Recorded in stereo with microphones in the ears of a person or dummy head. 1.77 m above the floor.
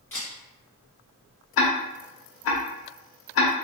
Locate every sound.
0.1 s a camera shutter: 15° left (ahead or behind), 1.2 m
1.6 s ticking: 65° left (ahead or behind), 0.7 m